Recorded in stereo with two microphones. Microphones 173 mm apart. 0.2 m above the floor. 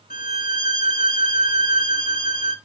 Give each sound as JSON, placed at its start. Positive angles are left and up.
{"t": 0.1, "sound": "a violin", "side_deg": 50, "distance_m": 1.3}